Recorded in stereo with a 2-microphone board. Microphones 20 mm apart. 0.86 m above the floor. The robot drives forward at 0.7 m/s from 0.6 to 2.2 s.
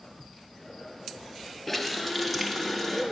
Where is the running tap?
10° left (ahead or behind), 0.6 m.